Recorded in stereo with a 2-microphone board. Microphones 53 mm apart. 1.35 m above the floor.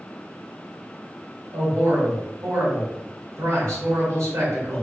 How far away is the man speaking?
About 1.5 m.